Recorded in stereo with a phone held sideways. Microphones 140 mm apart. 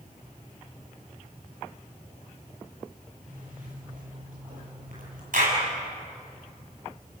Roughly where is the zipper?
Right.